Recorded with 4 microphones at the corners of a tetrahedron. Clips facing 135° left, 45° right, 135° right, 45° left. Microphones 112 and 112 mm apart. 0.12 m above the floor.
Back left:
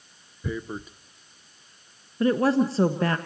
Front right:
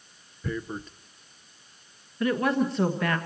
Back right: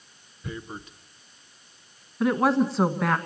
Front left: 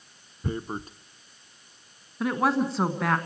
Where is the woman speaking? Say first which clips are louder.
Back left 4 dB, back right 3 dB; 135° left, 1.6 m.